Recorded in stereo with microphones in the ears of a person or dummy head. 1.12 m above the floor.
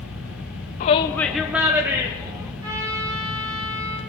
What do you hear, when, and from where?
0.8 s a shout: 35° left (ahead or behind), 0.6 m; by 2.5 s 25° right (ahead or behind), 2 m
2.6 s a trumpet: 25° right (ahead or behind), 6 m